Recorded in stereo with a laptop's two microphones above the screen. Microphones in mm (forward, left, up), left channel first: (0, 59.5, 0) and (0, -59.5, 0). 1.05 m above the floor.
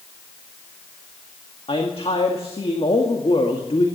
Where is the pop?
I don't hear a pop.